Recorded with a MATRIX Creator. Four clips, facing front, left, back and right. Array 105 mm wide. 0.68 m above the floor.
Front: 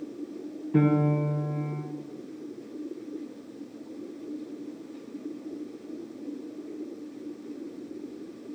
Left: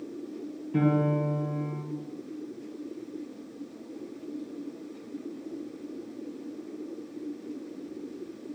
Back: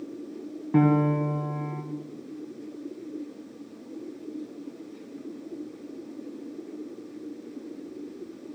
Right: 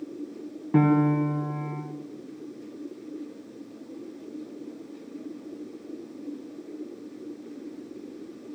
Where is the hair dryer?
I don't hear a hair dryer.